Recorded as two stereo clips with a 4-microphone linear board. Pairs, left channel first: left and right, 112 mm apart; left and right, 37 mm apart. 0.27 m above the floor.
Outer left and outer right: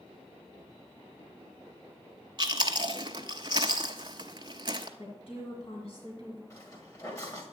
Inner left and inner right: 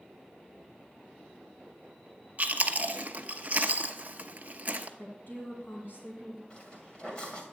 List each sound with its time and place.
2.4 s chewing: 45° right (ahead or behind), 0.7 m
5.0 s a woman speaking: 60° left (ahead or behind), 1.9 m
6.5 s footsteps: 30° left (ahead or behind), 2.5 m